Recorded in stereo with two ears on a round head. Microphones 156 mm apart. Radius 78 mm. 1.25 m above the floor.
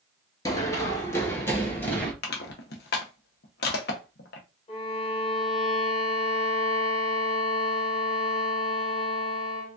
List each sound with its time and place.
0.5 s running footsteps: 20° left (ahead or behind), 1.2 m; by 2.1 s 10° left (ahead or behind), 1.5 m
2.2 s crushing: 65° left (ahead or behind), 0.8 m
4.7 s a violin: 35° left (ahead or behind), 1.3 m